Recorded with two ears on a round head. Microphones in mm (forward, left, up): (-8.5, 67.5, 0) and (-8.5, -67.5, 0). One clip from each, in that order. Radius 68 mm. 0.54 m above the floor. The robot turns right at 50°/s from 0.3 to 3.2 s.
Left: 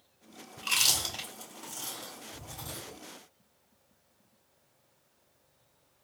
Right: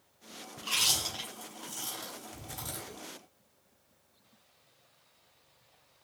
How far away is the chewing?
About 2 m.